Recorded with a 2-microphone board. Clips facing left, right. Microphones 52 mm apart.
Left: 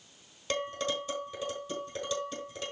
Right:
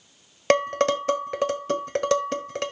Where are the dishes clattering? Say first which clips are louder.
Right 12 dB; 70° right (ahead or behind), 1.2 m.